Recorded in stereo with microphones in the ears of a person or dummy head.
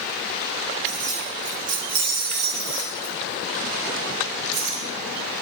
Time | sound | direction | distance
0.8 | keys jangling | 35° right (ahead or behind) | 5 m